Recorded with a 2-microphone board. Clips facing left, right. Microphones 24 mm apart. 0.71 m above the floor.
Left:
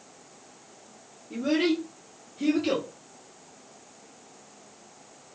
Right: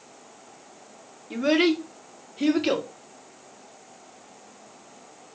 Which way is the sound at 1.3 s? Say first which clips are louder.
Right 4 dB; 65° right (ahead or behind).